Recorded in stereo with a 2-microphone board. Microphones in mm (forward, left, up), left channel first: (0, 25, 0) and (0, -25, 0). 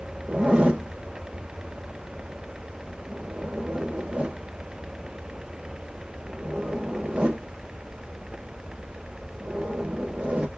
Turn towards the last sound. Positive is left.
turn(degrees=-25)  # may be behind; listen again after turning